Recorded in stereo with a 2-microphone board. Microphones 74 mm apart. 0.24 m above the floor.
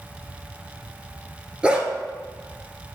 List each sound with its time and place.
1.6 s a dog barking: 15° right (ahead or behind), 1.2 m